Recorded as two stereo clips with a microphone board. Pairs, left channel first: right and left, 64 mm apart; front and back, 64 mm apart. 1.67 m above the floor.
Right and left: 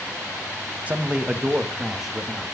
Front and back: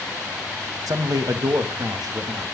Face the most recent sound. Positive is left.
turn(degrees=180)